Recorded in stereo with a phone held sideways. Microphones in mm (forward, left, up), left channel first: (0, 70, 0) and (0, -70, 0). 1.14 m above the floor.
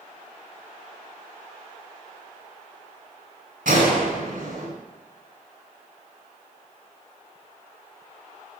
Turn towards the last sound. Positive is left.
turn(degrees=-75)  # may be behind; listen again after turning